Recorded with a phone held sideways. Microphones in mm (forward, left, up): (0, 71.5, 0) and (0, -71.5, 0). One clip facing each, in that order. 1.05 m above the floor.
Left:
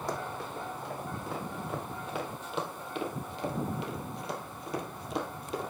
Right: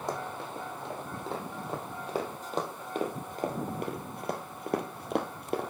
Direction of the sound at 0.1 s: 20° right (ahead or behind).